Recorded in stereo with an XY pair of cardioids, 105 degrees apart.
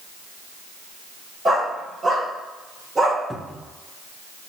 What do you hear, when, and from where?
1.4 s a dog barking: 20° right, 3 m; by 3.2 s 40° right, 2 m
3.3 s a cupboard door: 5° left, 0.7 m